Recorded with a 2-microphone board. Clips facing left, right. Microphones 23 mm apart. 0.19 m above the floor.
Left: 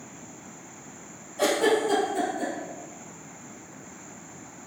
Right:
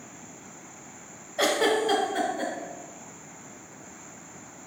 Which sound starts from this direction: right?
A giggle, at 1.4 s.